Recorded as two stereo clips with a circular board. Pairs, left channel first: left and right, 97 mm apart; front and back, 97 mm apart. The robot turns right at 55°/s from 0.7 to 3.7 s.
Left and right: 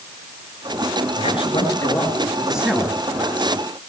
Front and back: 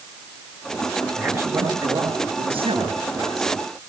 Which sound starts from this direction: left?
A man speaking, at 1.2 s.